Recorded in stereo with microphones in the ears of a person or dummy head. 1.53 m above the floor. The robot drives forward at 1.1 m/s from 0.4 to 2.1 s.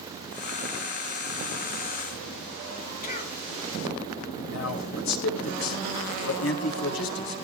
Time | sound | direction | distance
3.0 | a cough | 45° left (ahead or behind) | 2.5 m
4.5 | a man speaking | 70° left (ahead or behind) | 5 m